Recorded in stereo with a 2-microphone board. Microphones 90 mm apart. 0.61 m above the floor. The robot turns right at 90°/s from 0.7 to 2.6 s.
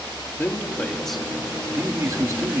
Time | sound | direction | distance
0.4 | a man speaking | 140° left | 1.2 m